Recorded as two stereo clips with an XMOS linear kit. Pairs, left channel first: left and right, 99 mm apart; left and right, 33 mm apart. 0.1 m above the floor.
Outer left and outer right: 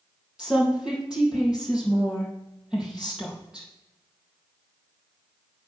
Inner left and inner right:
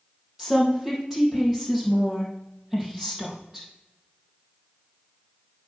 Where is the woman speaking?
10° right (ahead or behind), 3 m.